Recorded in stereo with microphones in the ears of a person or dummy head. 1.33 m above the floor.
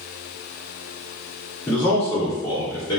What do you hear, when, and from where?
1.7 s a man speaking: 10° left (ahead or behind), 1.3 m; by 3.0 s 30° left (ahead or behind), 1.9 m